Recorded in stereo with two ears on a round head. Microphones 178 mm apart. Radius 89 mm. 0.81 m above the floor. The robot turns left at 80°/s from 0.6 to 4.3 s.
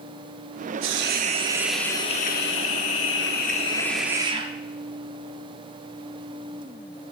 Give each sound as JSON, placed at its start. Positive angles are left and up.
{"t": 0.8, "sound": "a hiss", "azimuth_deg": -105, "distance_m": 0.8}